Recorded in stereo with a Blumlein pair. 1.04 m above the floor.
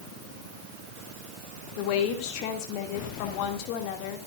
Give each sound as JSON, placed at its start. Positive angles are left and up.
{"t": 1.8, "sound": "a woman speaking", "azimuth_deg": 45, "distance_m": 2.5}